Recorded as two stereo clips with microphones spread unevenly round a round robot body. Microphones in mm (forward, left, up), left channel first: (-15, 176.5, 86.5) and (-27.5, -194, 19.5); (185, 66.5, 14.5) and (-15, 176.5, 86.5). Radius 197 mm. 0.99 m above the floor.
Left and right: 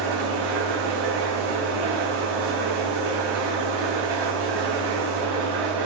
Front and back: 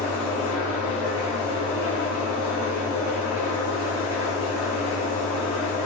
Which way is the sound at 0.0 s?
115° right.